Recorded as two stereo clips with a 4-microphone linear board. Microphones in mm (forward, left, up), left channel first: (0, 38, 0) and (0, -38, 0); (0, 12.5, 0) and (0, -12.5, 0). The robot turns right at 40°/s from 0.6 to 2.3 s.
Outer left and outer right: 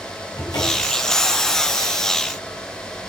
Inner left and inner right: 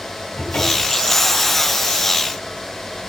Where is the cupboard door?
85° left, 4 m; by 1.0 s 75° left (ahead or behind), 4 m.